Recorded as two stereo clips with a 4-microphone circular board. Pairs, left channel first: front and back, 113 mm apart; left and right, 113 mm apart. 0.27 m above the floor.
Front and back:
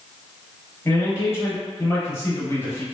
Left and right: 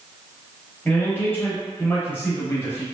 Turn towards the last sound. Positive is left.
turn(degrees=40)